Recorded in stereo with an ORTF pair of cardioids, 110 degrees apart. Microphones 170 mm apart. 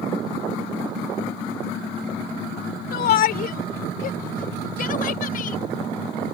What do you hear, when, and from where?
2.9 s a shout: 65° left; by 5.6 s 55° left